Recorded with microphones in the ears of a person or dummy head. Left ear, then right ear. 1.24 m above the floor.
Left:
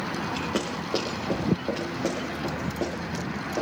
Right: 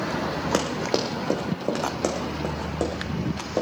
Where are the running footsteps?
60° right (ahead or behind), 3 m; by 3.6 s 55° right (ahead or behind), 5 m.